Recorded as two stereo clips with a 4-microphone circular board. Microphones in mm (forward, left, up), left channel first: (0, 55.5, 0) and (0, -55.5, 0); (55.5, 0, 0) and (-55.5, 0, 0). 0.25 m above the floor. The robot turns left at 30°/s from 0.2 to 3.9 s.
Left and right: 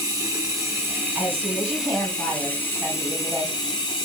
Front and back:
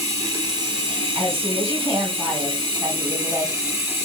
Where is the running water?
135° right, 1.2 m; by 4.0 s 115° left, 1.2 m.